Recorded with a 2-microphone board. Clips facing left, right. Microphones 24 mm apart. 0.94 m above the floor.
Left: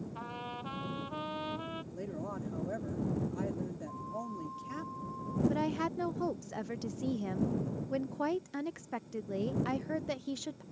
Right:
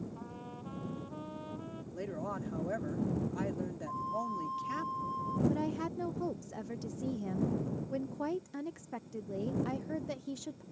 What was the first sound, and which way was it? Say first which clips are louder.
A trumpet: left 5 dB; 60° left (ahead or behind).